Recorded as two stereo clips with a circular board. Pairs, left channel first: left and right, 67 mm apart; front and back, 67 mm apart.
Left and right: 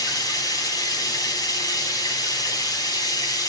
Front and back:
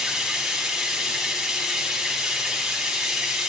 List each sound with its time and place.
0.0 s running water: 95° left, 4 m